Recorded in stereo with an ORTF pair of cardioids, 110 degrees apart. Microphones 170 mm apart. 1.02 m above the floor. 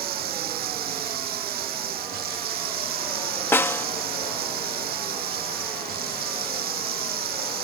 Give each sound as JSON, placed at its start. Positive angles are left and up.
{"t": 0.0, "sound": "running water", "azimuth_deg": -60}
{"t": 3.5, "sound": "a snare drum", "azimuth_deg": 15}